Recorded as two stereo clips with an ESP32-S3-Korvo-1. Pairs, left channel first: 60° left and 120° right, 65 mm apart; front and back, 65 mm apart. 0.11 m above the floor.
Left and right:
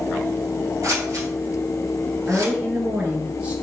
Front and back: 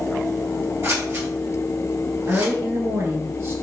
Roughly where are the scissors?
Behind right.